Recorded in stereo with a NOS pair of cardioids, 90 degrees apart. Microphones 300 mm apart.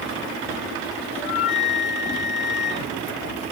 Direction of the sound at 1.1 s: 20° left.